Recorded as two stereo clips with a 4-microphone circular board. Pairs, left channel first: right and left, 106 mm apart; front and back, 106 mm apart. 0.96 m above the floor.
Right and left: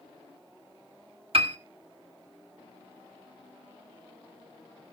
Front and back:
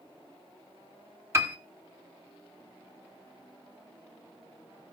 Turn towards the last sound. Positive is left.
turn(degrees=115)